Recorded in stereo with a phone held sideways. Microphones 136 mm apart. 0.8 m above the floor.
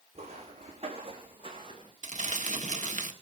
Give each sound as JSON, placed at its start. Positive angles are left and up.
{"t": 0.1, "sound": "footsteps", "side_deg": -50, "distance_m": 3.5}
{"t": 2.0, "sound": "crumpling", "side_deg": -65, "distance_m": 1.7}